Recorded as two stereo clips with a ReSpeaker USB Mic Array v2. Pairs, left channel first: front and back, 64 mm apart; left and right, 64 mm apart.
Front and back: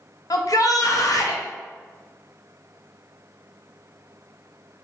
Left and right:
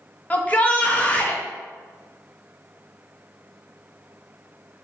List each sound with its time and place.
0.3 s a shout: 25° left, 0.7 m